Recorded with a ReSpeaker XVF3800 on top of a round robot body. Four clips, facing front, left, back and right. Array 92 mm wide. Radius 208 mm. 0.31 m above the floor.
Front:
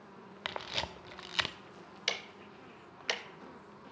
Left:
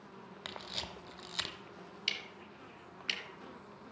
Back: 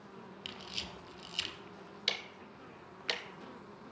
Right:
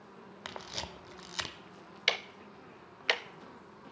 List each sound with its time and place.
0.5 s a camera shutter: 15° right, 0.8 m
2.1 s ticking: 75° right, 0.6 m